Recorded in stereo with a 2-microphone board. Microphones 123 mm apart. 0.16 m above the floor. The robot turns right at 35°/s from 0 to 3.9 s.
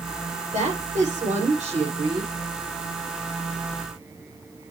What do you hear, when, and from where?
0.5 s a woman speaking: 105° right, 6.5 m; by 2.3 s 45° right, 6.5 m